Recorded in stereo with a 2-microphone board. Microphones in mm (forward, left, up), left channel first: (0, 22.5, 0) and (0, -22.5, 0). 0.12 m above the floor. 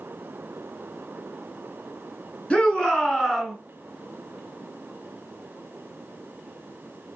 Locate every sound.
2.5 s a shout: 25° left (ahead or behind), 1.1 m; by 3.5 s 10° right (ahead or behind), 1.2 m